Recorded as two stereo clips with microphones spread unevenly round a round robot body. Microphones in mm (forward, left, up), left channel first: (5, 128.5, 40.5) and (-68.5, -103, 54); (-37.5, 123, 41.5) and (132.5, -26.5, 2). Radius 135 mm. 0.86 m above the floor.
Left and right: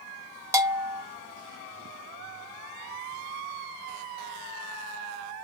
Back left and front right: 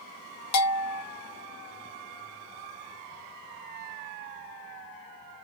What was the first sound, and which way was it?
A bell, 175° left.